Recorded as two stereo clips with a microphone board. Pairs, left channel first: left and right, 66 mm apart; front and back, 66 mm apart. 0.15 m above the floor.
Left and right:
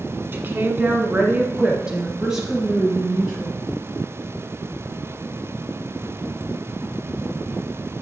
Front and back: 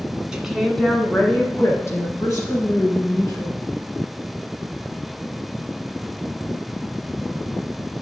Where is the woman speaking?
105° right, 1.3 m; by 3.6 s straight ahead, 3 m.